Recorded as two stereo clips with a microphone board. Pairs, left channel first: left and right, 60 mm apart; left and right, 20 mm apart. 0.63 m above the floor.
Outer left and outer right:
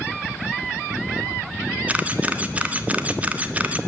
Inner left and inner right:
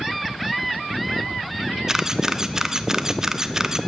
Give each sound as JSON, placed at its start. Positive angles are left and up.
{"t": 1.9, "sound": "a camera shutter", "side_deg": -25, "distance_m": 1.0}